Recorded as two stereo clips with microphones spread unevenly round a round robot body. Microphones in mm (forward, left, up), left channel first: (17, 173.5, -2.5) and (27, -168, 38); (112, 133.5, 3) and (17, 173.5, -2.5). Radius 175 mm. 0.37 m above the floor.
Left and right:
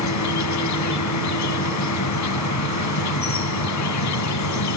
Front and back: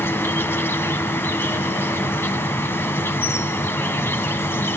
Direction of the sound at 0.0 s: 50° left.